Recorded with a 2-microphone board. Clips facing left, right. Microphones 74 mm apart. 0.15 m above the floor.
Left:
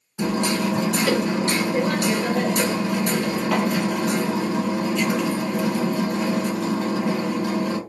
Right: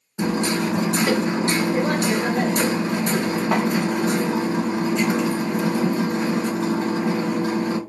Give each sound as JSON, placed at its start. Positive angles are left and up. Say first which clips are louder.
{"t": 0.2, "sound": "hammering", "louder": "right 1 dB", "side_deg": -30, "distance_m": 1.2}